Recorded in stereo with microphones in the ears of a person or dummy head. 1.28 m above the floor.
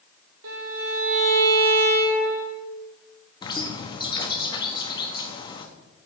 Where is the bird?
30° left (ahead or behind), 1.0 m.